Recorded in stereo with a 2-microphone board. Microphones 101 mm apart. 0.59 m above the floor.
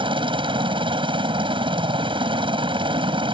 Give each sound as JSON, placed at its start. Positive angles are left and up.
{"t": 0.0, "sound": "a helicopter", "side_deg": -55}